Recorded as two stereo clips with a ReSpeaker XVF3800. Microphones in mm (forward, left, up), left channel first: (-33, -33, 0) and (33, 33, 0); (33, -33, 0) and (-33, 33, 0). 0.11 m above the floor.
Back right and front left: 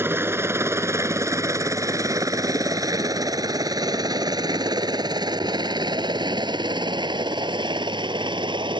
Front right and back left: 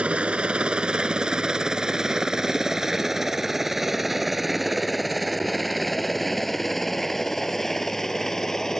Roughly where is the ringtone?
No ringtone in this recording.